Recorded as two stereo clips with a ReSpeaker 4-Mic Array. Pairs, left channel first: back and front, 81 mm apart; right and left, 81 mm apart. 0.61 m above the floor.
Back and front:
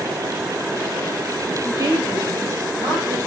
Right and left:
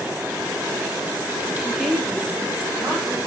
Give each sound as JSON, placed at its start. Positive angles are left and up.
{"t": 1.6, "sound": "a woman speaking", "azimuth_deg": -10, "distance_m": 1.1}